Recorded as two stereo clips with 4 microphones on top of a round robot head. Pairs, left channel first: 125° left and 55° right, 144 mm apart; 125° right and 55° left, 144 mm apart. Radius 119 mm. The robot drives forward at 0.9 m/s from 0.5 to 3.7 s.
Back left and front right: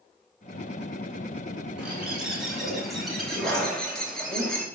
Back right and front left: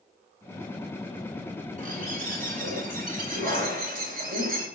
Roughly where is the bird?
Ahead left.